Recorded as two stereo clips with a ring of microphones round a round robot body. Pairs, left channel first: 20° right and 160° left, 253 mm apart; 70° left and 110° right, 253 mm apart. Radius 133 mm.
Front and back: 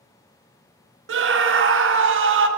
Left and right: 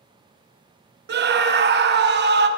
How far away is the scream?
About 1.4 m.